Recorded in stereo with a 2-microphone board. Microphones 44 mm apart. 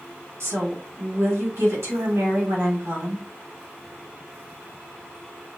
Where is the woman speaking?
75° right (ahead or behind), 2.5 m.